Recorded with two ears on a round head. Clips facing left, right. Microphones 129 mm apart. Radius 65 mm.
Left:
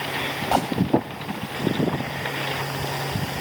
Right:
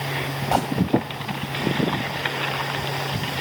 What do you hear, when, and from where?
0.5 s a gunshot: centre (ahead or behind)